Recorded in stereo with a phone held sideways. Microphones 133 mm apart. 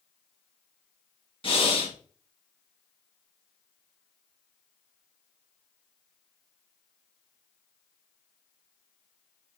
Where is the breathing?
45° left (ahead or behind), 1.1 m.